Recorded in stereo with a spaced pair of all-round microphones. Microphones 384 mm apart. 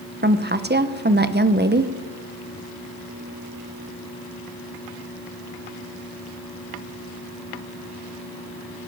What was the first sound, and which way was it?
A woman speaking, 30° right (ahead or behind).